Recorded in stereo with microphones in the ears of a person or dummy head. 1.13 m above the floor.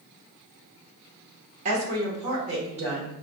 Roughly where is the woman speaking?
Right.